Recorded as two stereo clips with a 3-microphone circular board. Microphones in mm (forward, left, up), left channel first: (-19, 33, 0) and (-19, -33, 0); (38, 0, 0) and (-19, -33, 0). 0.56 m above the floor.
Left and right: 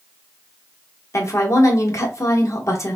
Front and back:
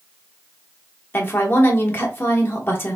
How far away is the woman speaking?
About 1.1 m.